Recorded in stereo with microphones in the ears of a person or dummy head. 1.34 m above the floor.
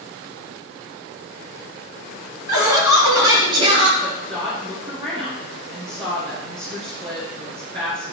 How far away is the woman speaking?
About 2.5 m.